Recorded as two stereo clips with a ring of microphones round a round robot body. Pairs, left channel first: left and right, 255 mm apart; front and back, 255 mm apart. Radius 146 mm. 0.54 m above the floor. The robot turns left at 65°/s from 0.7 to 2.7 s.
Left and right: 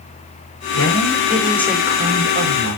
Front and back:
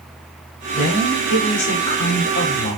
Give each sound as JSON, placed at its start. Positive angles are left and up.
{"t": 0.7, "sound": "a woman speaking", "azimuth_deg": 60, "distance_m": 4.0}